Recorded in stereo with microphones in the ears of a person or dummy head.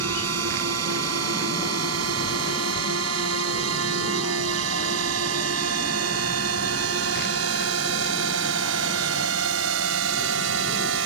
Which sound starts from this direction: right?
A drone, at 0.0 s.